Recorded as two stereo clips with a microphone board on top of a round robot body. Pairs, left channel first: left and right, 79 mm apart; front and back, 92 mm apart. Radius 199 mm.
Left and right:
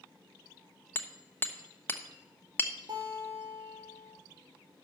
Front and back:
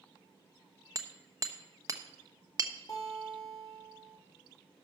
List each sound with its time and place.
0.9 s hammering: 145° left, 1.2 m
2.9 s a guitar: 50° right, 4 m